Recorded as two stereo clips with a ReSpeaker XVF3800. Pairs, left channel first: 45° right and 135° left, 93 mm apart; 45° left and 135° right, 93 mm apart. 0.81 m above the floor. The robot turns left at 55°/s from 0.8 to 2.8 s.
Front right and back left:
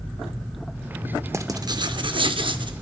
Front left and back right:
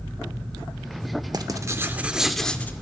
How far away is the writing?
About 0.6 m.